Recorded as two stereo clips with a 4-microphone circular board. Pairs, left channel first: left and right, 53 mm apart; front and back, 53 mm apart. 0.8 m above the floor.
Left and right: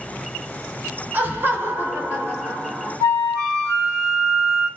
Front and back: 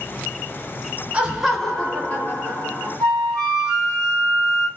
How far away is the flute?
About 2 m.